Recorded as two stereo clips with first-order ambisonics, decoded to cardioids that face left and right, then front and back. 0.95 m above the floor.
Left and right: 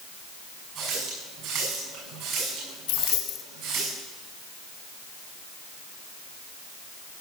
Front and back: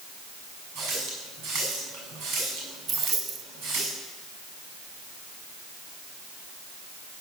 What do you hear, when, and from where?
0.8 s a running tap: 140° right, 6.5 m
2.9 s keys jangling: 115° left, 1.1 m